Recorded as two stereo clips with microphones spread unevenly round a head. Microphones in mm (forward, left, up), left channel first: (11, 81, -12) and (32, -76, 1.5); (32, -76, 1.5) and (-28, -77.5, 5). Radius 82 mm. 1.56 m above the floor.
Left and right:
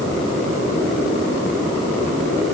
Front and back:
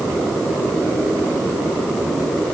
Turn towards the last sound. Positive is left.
No sound to turn to.